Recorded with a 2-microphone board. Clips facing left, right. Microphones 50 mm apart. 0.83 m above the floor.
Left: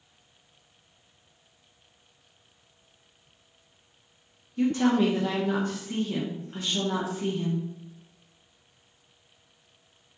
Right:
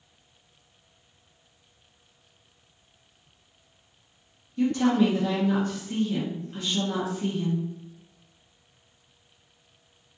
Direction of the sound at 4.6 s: 20° left (ahead or behind).